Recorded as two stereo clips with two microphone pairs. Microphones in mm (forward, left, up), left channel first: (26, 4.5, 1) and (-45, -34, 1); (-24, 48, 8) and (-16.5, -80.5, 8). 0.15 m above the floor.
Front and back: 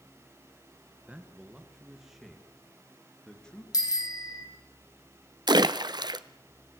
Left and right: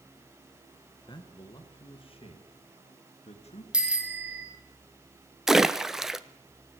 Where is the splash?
170° right, 0.8 m.